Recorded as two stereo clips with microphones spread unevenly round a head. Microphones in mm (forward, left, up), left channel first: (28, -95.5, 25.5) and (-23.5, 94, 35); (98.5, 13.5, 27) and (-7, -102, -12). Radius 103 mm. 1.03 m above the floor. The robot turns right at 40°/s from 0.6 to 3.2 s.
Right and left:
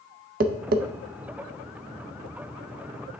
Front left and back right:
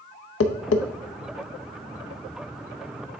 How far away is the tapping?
About 0.6 m.